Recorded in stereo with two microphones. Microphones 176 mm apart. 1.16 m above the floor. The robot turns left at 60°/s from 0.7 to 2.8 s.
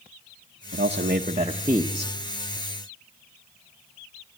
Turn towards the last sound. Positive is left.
turn(degrees=135)